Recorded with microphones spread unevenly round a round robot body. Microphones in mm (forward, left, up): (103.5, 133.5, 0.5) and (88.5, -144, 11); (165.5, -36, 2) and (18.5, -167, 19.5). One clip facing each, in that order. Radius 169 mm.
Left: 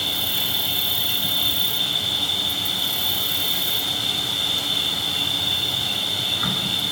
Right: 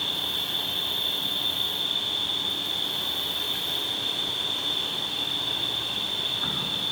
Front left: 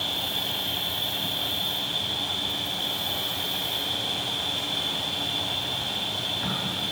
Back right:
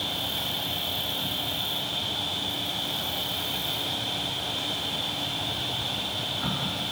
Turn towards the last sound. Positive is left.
turn(degrees=130)